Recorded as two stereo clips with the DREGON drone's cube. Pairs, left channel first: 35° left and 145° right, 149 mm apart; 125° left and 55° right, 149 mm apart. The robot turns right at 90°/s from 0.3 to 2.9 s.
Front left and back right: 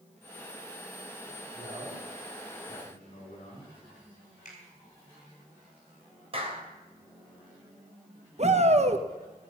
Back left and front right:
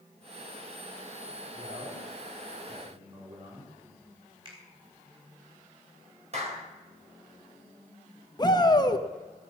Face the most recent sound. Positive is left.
turn(degrees=180)